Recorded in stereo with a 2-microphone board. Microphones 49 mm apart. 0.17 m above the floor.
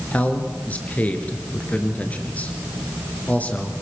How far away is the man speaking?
About 3 m.